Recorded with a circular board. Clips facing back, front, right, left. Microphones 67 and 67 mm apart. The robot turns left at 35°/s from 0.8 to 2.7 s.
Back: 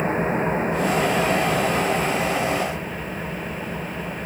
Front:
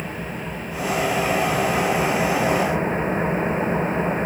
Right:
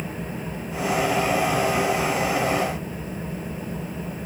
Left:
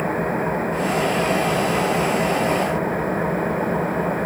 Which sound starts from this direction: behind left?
An engine running, at 0.0 s.